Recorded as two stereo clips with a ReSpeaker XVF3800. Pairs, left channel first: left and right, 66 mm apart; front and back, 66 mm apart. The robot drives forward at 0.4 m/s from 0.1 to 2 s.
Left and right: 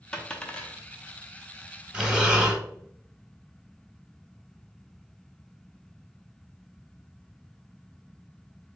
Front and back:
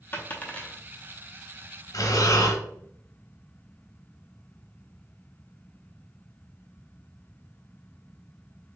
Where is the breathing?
10° right, 0.8 m; by 2.6 s 15° right, 0.8 m.